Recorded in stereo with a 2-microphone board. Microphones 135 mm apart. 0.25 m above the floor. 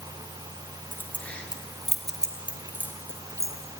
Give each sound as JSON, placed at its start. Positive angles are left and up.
{"t": 0.9, "sound": "keys jangling", "side_deg": 15, "distance_m": 2.5}